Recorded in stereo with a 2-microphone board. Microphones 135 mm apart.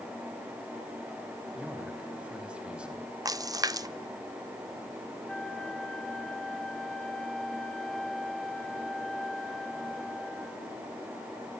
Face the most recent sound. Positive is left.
turn(degrees=5)  # may be behind; listen again after turning